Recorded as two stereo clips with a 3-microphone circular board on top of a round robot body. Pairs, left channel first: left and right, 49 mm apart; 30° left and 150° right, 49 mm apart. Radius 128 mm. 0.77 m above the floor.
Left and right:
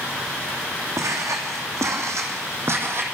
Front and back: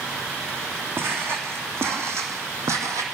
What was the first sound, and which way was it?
Footsteps, 105° right.